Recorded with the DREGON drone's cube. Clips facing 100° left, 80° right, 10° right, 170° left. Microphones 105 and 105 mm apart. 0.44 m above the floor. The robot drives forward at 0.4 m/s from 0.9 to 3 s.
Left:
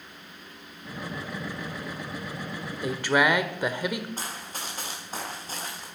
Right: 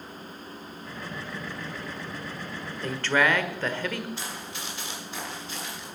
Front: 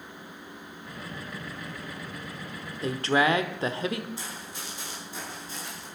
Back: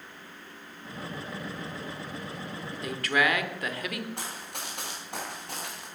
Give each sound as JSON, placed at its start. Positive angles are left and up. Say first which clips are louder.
{"t": 2.8, "sound": "a woman speaking", "louder": "left 1 dB, front 3 dB", "azimuth_deg": 30, "distance_m": 1.2}
{"t": 4.2, "sound": "running footsteps", "louder": "even, back 1 dB", "azimuth_deg": 145, "distance_m": 5.0}